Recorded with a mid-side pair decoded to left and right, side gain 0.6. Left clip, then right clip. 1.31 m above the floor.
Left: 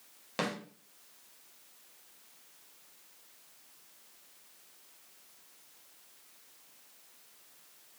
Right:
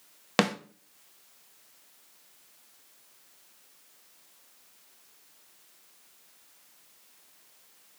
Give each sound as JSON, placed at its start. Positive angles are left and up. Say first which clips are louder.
{"t": 0.4, "sound": "a snare drum", "louder": "right 9 dB", "azimuth_deg": -60, "distance_m": 0.9}